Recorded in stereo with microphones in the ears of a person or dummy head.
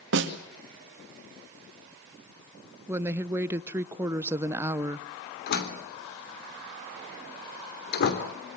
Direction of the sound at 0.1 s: 60° right (ahead or behind).